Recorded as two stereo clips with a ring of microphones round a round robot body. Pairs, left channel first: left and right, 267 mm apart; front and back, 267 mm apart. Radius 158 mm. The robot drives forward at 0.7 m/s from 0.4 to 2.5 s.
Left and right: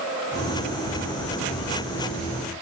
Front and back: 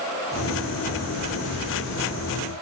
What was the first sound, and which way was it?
Only background noise.